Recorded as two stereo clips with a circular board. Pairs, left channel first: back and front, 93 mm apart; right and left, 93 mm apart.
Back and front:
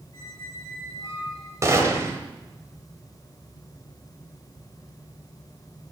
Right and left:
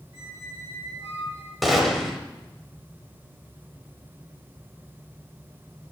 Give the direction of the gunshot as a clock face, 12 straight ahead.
12 o'clock.